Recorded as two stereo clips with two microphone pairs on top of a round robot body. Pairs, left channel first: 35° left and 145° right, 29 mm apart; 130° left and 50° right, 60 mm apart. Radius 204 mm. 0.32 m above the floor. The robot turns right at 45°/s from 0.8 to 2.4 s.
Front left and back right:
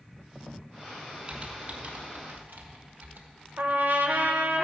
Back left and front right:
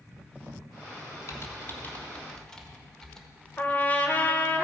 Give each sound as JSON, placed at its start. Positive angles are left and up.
{"t": 1.3, "sound": "typing on a keyboard", "azimuth_deg": 155, "distance_m": 1.6}
{"t": 3.6, "sound": "a trumpet", "azimuth_deg": -170, "distance_m": 1.1}